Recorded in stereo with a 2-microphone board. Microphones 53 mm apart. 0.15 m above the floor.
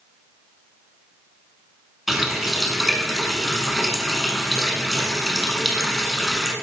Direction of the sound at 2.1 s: 5° right (ahead or behind).